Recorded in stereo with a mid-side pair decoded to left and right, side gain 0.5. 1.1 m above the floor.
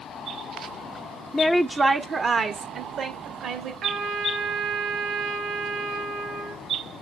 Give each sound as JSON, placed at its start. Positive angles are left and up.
{"t": 1.3, "sound": "a woman speaking", "azimuth_deg": 25, "distance_m": 0.6}
{"t": 3.8, "sound": "a trumpet", "azimuth_deg": -60, "distance_m": 4.0}